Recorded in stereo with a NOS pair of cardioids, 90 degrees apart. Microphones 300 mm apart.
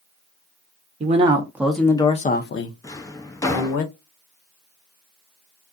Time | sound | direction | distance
1.0 | a man speaking | 25° right | 0.9 m
2.8 | a drawer | 10° left | 0.6 m